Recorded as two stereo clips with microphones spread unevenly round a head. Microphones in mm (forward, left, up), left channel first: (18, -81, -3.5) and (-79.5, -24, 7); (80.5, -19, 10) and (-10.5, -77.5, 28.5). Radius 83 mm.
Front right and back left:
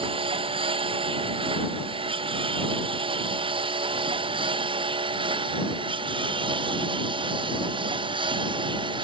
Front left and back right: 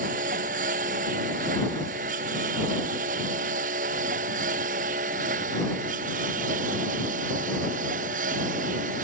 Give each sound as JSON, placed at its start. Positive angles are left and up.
{"t": 0.0, "sound": "a lawn mower", "azimuth_deg": -170}